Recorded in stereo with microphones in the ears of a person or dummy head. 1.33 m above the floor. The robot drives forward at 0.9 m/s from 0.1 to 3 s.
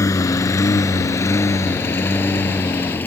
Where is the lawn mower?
20° left (ahead or behind); by 3.1 s 10° left (ahead or behind).